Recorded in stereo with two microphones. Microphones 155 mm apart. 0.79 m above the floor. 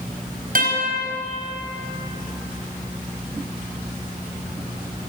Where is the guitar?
65° right (ahead or behind), 5.5 m.